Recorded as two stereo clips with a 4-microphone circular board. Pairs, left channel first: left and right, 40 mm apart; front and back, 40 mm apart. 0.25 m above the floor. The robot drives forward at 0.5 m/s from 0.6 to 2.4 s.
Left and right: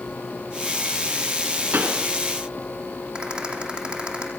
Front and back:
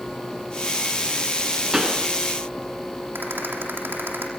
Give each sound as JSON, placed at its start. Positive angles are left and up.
{"t": 1.7, "sound": "a pop", "azimuth_deg": -105, "distance_m": 3.5}
{"t": 3.1, "sound": "a rattle", "azimuth_deg": -155, "distance_m": 8.0}